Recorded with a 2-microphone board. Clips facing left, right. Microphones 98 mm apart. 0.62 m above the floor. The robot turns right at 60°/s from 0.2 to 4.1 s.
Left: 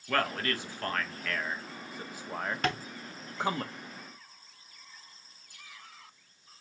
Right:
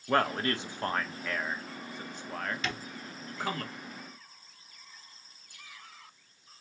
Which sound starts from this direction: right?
A man speaking, at 0.1 s.